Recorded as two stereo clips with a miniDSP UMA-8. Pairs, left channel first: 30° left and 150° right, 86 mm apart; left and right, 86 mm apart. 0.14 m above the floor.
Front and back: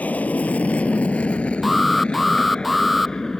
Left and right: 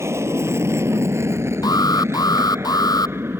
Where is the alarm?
125° left.